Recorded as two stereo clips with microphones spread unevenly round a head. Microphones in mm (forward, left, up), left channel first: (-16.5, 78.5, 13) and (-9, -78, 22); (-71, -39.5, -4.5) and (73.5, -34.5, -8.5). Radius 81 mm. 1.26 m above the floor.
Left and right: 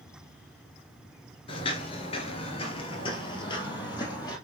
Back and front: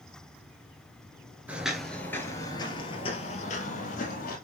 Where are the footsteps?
75° left, 1.3 m; by 4.3 s 160° left, 2.5 m.